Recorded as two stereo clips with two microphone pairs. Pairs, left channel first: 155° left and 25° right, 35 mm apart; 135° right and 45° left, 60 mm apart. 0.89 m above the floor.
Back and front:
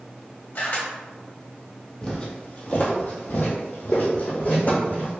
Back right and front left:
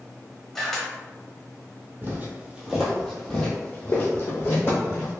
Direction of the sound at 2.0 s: 90° left.